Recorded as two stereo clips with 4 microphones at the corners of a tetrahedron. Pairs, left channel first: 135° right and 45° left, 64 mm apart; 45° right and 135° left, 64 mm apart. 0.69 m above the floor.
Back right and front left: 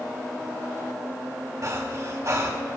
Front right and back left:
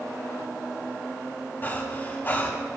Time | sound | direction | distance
1.6 | breathing | 10° left | 3.5 m